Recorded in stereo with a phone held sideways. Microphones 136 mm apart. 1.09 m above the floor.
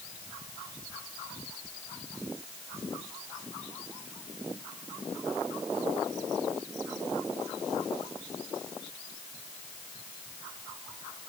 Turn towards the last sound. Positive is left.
No sound to turn to.